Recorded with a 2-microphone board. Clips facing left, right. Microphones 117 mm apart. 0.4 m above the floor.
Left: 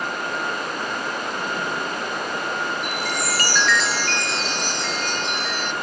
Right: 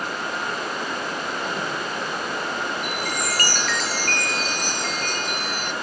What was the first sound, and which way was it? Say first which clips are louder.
A chime: left 1 dB; 45° right (ahead or behind).